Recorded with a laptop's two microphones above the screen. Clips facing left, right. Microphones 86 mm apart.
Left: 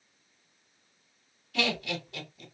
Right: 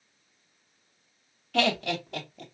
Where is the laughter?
65° right (ahead or behind), 2 m.